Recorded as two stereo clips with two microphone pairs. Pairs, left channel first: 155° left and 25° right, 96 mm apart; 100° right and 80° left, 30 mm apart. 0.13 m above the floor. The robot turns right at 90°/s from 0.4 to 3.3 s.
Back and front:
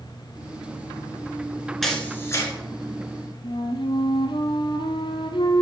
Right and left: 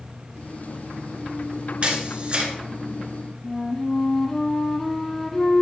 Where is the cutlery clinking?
I don't hear cutlery clinking.